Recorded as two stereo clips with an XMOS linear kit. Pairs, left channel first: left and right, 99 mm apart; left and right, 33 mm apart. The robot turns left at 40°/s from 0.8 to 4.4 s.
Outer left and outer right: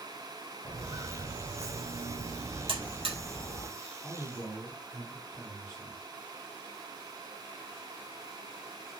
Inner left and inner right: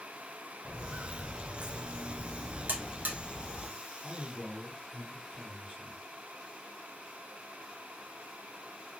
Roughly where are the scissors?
No scissors in this recording.